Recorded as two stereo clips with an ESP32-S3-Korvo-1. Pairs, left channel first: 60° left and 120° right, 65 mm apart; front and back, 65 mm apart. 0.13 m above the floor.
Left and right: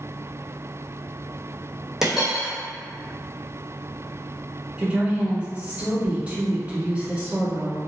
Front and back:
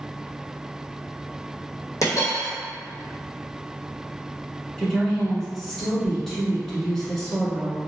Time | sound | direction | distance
2.0 | a dropped coin | 35° right | 1.4 m
4.8 | a woman speaking | 80° right | 1.2 m